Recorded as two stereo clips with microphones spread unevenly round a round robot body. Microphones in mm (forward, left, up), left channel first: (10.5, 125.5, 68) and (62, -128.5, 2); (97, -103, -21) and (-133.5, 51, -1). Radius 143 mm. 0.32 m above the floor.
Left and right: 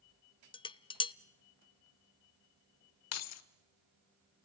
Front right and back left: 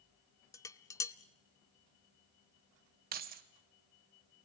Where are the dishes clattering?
20° left, 0.6 m.